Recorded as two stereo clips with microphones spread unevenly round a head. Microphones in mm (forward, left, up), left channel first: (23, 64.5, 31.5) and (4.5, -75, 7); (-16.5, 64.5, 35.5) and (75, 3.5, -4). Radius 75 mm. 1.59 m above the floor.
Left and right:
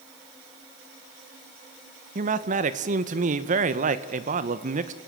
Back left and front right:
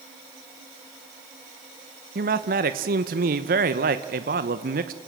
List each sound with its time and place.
2.1 s a man speaking: 55° right, 1.3 m